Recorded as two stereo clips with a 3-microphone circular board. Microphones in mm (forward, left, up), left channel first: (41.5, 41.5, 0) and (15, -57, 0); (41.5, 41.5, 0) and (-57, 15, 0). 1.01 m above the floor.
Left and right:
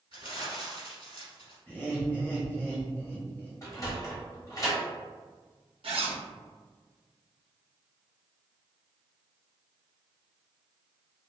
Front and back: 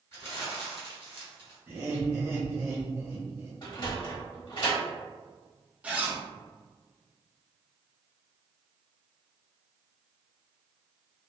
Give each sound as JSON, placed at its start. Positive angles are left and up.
{"t": 0.1, "sound": "crumpling", "azimuth_deg": 70, "distance_m": 1.4}
{"t": 1.7, "sound": "laughter", "azimuth_deg": 140, "distance_m": 1.0}
{"t": 3.6, "sound": "a sliding door", "azimuth_deg": 30, "distance_m": 1.0}
{"t": 5.8, "sound": "a zipper", "azimuth_deg": -90, "distance_m": 0.6}